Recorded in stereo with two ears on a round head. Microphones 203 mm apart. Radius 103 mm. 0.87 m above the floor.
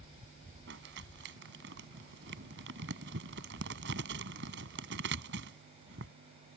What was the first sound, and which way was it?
Crumpling, 50° right (ahead or behind).